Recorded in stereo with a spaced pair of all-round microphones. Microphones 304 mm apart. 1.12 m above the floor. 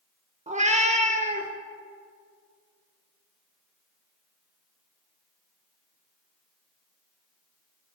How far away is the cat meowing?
About 0.8 m.